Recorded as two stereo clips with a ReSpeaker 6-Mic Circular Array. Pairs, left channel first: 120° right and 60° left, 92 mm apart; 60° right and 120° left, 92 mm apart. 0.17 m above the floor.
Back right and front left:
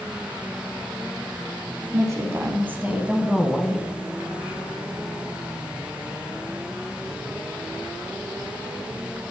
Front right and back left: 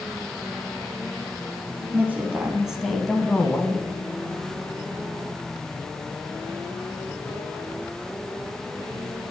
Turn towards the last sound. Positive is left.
turn(degrees=-60)